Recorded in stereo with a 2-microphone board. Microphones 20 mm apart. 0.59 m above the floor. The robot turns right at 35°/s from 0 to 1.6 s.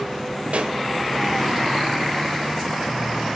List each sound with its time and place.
0.5 s a pop: 75° right (ahead or behind), 1.2 m; by 0.8 s 65° right (ahead or behind), 1.2 m